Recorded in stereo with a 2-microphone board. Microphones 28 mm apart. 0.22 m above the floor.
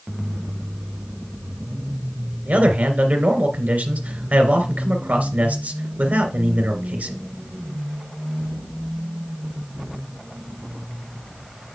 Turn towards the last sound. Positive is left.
turn(degrees=-65)  # may be behind; listen again after turning